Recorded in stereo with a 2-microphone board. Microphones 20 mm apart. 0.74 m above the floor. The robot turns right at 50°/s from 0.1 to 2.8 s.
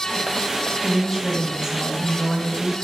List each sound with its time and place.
0.8 s a woman speaking: 175° right, 1.2 m; by 2.7 s 80° right, 1.2 m